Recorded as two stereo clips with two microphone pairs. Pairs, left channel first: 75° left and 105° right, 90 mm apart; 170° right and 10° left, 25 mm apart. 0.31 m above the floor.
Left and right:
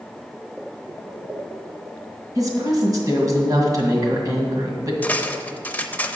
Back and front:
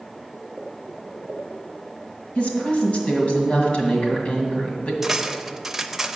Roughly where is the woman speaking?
Behind right.